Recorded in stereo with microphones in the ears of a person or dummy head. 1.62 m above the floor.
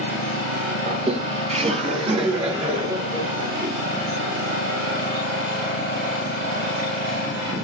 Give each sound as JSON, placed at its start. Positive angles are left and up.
{"t": 0.9, "sound": "laughter", "side_deg": -40, "distance_m": 1.0}